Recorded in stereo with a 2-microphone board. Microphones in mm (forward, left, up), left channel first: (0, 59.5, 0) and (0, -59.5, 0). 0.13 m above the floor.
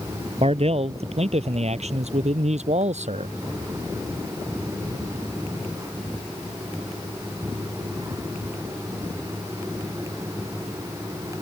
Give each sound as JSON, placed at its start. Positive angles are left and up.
{"t": 0.4, "sound": "a man speaking", "side_deg": -60}